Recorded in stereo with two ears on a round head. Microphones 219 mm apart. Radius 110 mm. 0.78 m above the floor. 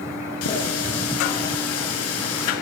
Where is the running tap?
70° left (ahead or behind), 6 m.